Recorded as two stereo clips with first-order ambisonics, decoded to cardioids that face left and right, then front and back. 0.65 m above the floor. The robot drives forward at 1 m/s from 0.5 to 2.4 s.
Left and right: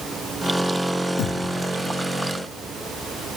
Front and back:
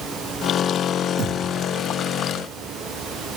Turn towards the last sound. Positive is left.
turn(degrees=150)